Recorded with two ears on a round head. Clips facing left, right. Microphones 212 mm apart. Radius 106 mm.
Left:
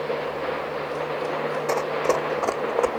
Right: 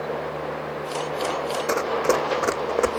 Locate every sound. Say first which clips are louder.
1.7 s running footsteps: right 2 dB; 15° right (ahead or behind); by 2.9 s 25° right (ahead or behind)